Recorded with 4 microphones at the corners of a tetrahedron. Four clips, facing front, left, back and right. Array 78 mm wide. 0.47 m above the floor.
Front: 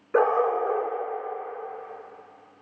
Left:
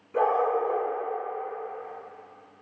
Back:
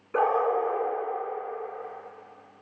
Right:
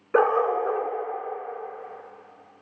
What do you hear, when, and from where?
0.1 s a dog barking: 70° right, 2.5 m